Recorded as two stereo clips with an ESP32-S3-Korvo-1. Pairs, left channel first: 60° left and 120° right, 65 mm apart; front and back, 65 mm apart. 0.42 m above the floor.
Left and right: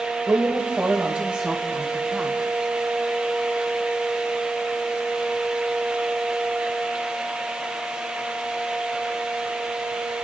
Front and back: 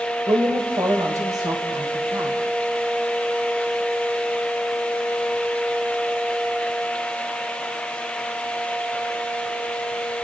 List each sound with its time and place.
0.3 s a woman speaking: 170° right, 1.6 m; by 2.4 s 155° left, 3.5 m